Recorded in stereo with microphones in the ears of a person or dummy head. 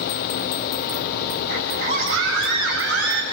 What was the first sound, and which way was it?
A scream, 75° right (ahead or behind).